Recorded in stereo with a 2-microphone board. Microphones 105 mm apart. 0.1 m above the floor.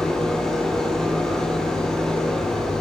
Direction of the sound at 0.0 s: 5° left (ahead or behind).